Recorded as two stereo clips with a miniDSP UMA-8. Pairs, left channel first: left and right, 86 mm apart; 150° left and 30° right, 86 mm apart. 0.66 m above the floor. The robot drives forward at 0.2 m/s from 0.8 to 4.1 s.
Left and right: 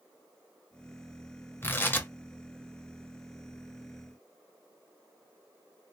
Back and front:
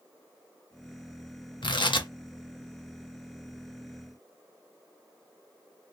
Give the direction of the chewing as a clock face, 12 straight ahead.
No chewing in this recording.